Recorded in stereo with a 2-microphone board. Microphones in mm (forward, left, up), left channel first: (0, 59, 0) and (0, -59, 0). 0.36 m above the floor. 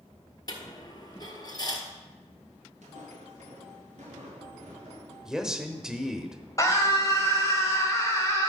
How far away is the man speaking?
About 0.9 m.